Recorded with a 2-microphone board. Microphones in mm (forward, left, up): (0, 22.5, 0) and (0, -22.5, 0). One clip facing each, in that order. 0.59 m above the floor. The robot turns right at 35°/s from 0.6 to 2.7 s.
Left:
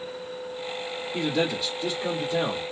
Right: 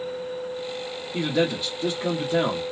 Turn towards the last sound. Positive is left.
turn(degrees=-115)